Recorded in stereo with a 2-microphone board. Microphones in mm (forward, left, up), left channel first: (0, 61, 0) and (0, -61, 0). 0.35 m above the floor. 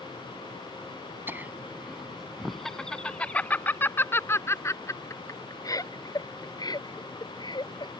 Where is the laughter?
15° right (ahead or behind); by 7.9 s 40° left (ahead or behind).